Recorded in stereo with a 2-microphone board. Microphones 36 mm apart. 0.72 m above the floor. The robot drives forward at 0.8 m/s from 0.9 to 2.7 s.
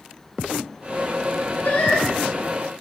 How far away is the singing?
About 4.5 m.